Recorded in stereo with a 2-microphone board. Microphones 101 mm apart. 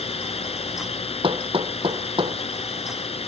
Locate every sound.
0.0 s a drone: 75° left (ahead or behind)
1.2 s hammering: 60° right (ahead or behind)